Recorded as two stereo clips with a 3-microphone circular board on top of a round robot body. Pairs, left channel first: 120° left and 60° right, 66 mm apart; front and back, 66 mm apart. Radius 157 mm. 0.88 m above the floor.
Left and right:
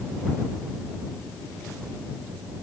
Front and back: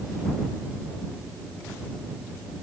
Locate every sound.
Only background noise.